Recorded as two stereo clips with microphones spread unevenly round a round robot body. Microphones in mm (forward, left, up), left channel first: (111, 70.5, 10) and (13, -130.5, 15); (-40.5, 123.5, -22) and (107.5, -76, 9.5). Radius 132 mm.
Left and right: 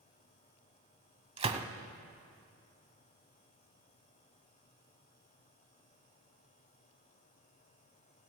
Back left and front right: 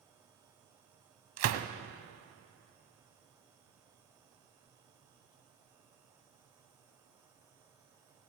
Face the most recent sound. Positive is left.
turn(degrees=-55)